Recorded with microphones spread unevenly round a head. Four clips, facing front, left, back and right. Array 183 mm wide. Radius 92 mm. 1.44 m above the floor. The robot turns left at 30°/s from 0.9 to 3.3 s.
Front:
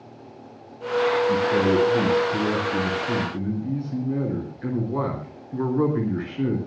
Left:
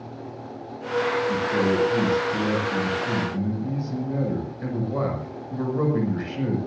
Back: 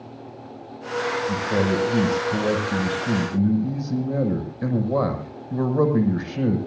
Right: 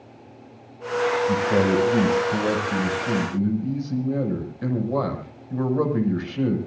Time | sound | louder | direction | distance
1.3 | a man speaking | right 2 dB, front 3 dB | 105° right | 6.5 m